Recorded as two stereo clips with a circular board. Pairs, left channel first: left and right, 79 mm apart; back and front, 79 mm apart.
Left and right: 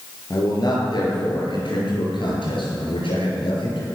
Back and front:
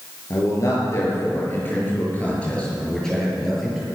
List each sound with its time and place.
0.3 s a man speaking: 135° left, 6.5 m; by 3.9 s 85° left, 6.5 m